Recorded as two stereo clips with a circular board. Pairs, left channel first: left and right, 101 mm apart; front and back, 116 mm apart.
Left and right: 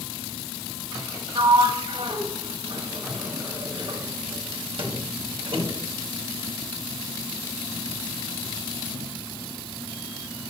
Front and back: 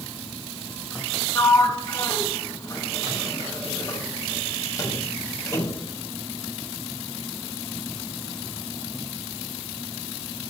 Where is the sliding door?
60° right, 1.4 m.